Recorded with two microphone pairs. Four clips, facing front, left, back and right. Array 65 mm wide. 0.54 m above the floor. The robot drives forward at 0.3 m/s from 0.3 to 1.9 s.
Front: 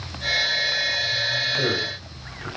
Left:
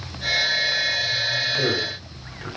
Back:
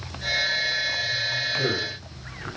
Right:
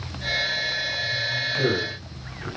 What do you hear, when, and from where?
1.6 s a man speaking: 45° left, 1.7 m; by 2.5 s 50° left, 1.6 m